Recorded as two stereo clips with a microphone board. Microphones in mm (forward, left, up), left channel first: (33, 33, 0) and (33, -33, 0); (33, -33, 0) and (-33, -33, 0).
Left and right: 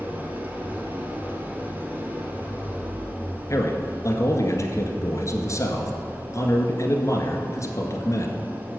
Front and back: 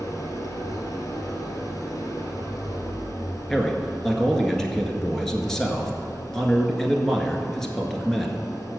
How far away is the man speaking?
About 1.6 m.